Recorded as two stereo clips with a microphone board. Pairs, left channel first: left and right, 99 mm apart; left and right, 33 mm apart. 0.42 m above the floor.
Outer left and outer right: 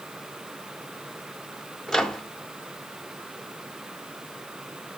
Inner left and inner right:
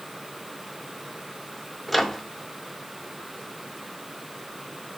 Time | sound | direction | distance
1.9 | a microwave | 5° left (ahead or behind) | 0.7 m